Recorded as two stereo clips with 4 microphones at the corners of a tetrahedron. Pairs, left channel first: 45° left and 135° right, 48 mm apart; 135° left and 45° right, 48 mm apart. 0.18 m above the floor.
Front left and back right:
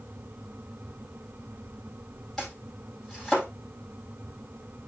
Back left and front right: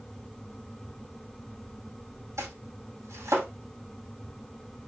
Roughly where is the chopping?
Ahead right.